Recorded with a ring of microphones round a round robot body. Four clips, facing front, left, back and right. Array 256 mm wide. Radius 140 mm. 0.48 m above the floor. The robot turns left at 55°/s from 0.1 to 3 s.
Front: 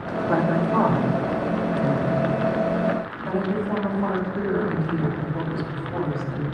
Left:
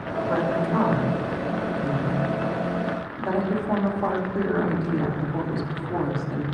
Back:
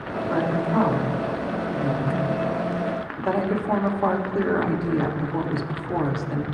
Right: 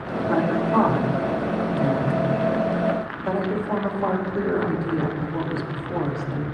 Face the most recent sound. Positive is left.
turn(degrees=175)